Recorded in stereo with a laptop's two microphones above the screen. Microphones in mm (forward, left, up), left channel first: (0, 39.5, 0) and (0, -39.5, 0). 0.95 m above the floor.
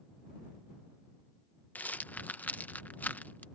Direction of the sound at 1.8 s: 20° left (ahead or behind).